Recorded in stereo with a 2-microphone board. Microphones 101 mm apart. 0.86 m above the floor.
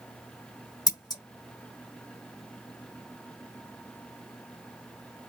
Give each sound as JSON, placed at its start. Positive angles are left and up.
{"t": 0.9, "sound": "scissors", "side_deg": 40, "distance_m": 1.1}